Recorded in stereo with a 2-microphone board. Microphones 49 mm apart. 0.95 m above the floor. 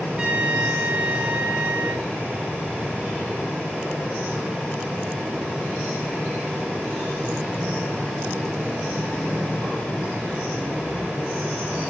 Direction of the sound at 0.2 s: 20° right (ahead or behind).